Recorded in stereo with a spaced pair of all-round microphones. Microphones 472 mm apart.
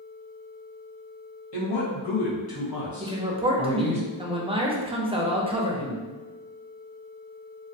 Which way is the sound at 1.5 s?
60° left (ahead or behind).